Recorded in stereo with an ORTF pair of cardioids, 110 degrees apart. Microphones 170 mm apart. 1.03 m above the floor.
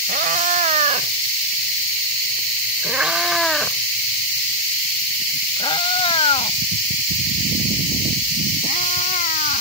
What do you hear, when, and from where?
0.1 s a cat meowing: 55° right; by 9.6 s 50° left